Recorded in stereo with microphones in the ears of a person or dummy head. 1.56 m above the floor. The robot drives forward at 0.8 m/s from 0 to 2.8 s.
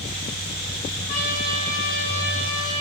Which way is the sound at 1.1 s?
45° left (ahead or behind).